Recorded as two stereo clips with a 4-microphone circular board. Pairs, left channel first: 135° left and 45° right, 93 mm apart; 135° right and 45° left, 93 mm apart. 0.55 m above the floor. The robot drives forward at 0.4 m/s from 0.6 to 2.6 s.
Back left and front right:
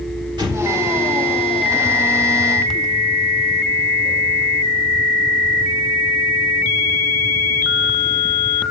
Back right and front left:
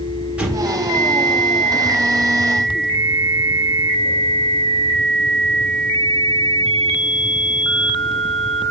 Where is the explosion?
30° right, 1.5 m.